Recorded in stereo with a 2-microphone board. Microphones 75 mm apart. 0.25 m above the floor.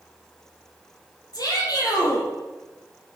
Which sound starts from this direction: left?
A shout, at 1.3 s.